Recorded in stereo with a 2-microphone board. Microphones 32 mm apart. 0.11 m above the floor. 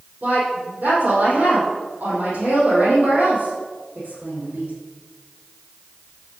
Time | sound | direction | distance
0.2 | a woman speaking | 70° right (ahead or behind) | 4.5 m